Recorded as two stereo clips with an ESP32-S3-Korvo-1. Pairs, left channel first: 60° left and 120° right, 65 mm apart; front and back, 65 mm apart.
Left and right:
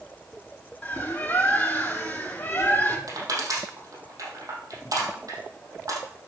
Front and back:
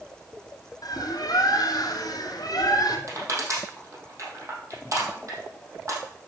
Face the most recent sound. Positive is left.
turn(degrees=-145)